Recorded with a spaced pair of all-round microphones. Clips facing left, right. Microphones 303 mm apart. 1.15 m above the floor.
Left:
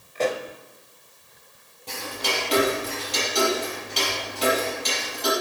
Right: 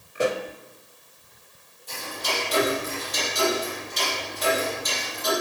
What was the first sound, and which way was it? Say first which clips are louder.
A pop: right 1 dB; 15° right (ahead or behind).